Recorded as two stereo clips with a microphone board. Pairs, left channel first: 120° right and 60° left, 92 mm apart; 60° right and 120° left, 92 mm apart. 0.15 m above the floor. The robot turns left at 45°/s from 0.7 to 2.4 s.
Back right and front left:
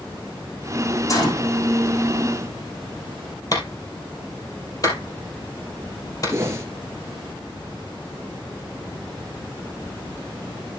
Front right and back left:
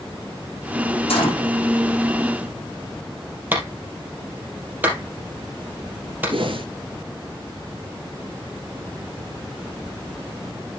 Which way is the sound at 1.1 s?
65° right.